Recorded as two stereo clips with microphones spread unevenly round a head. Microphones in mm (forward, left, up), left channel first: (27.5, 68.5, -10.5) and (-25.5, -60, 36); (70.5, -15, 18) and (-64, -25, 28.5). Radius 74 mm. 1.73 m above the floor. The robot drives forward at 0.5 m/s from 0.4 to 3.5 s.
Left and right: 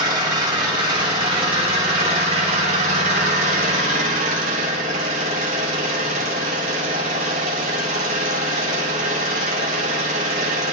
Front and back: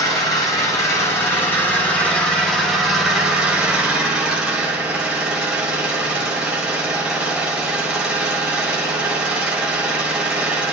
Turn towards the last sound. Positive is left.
turn(degrees=-95)